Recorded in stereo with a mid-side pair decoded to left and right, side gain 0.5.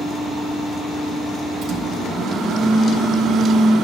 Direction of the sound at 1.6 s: 70° right.